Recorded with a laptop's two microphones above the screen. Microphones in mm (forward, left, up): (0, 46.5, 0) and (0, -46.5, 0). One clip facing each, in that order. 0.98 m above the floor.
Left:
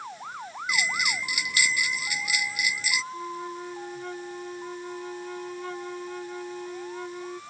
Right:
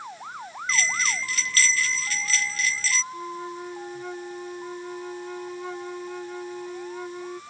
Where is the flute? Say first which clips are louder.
Right 1 dB; 5° right (ahead or behind).